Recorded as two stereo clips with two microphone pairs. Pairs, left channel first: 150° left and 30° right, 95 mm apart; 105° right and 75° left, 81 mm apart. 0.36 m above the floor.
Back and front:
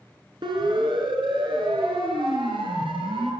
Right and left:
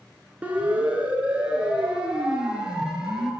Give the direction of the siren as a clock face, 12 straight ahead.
12 o'clock.